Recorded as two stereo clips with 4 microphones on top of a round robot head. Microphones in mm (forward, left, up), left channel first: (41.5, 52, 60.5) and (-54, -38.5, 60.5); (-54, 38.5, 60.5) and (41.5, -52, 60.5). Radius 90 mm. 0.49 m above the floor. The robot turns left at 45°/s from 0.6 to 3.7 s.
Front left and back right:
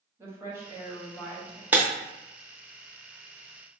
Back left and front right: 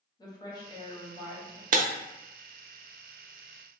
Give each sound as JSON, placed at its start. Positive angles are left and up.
{"t": 0.2, "sound": "a woman speaking", "azimuth_deg": 165, "distance_m": 1.4}
{"t": 1.7, "sound": "breaking glass", "azimuth_deg": -60, "distance_m": 0.5}